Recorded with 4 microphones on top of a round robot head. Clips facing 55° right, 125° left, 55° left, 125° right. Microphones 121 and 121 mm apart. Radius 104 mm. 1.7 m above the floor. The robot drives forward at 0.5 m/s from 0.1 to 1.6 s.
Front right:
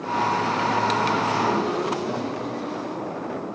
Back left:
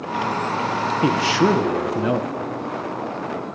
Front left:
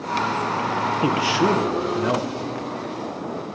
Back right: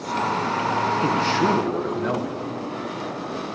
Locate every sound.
1.0 s a man speaking: 130° left, 1.6 m; by 2.3 s 135° left, 1.8 m